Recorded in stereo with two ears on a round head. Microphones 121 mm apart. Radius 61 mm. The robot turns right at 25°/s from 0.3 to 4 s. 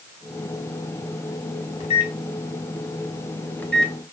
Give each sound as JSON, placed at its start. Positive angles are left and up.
{"t": 1.8, "sound": "a microwave", "side_deg": 50, "distance_m": 0.5}